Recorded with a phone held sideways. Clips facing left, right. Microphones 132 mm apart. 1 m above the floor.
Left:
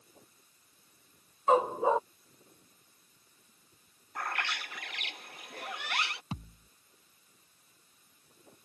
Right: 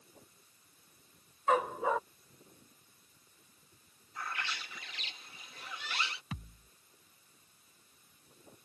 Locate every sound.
1.5 s a dog barking: 25° left (ahead or behind)
4.2 s a bird: 65° left (ahead or behind)
6.3 s a thud: 30° left (ahead or behind)